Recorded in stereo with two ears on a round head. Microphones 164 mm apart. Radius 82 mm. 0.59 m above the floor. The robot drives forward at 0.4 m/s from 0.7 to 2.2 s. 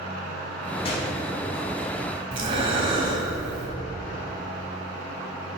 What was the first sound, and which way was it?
A gunshot, 30° left (ahead or behind).